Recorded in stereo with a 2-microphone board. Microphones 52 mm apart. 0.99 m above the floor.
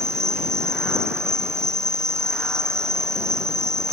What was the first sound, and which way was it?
An insect, 70° right (ahead or behind).